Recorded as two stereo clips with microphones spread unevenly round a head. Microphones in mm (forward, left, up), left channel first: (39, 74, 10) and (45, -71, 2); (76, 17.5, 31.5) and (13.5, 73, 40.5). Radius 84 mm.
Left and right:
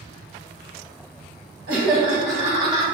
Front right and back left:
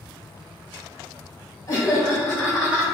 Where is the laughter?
95° right, 1.3 m; by 2.8 s 155° right, 0.8 m.